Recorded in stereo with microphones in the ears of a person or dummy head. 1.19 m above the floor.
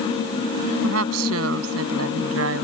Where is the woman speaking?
85° right; by 2.6 s 75° right (ahead or behind).